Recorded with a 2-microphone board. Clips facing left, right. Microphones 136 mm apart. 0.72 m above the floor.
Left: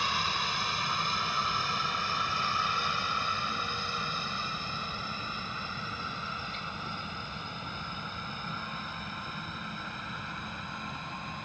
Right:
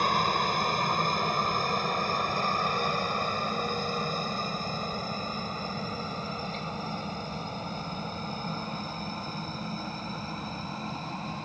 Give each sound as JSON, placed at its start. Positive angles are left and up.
{"t": 0.0, "sound": "a helicopter", "side_deg": -50}